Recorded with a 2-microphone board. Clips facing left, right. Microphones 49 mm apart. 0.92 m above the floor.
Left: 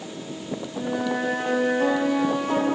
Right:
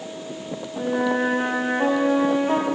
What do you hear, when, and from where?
0.8 s a flute: 30° right (ahead or behind), 0.7 m